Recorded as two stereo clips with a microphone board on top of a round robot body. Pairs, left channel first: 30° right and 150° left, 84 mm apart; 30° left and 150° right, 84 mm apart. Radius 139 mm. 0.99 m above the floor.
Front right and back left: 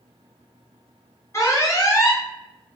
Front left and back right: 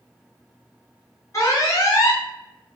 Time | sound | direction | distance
1.3 | an alarm | straight ahead | 1.5 m